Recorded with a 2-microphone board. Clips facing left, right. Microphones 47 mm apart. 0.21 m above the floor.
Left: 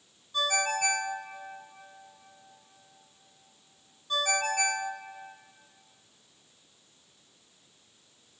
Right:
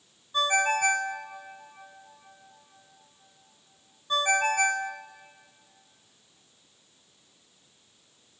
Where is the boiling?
I don't hear boiling.